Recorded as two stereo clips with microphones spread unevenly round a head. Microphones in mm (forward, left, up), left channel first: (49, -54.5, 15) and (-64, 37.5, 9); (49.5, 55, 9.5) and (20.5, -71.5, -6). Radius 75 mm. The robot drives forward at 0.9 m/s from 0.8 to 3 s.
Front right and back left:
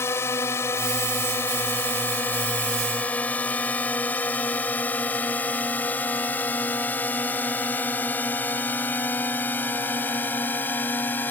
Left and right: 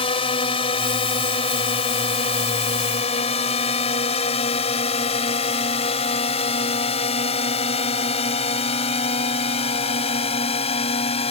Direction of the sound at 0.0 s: 35° left.